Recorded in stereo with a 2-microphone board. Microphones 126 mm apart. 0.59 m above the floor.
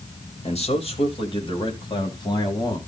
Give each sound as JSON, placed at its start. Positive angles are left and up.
{"t": 0.4, "sound": "a man speaking", "side_deg": 60, "distance_m": 2.5}